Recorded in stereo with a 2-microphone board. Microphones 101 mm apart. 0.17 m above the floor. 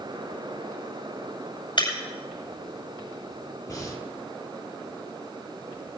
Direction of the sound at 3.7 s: 35° left (ahead or behind).